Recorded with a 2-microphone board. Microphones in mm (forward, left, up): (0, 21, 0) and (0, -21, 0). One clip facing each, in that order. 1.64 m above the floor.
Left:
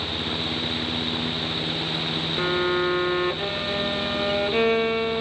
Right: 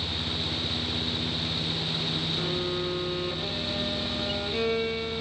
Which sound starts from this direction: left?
A violin, at 2.4 s.